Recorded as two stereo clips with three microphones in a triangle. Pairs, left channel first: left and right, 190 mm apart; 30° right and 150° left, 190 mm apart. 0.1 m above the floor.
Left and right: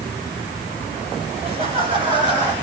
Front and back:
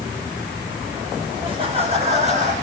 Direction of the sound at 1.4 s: 145° right.